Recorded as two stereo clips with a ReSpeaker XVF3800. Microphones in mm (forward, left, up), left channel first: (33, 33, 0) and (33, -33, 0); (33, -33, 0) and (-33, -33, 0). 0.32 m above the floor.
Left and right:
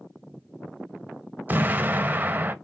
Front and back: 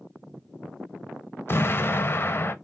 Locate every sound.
1.5 s an explosion: 40° right, 0.5 m